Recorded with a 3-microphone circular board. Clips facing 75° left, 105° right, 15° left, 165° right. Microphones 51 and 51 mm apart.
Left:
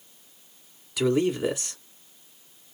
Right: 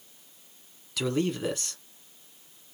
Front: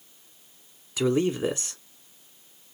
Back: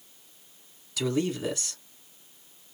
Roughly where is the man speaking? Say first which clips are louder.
Left 5 dB, front 4 dB; ahead.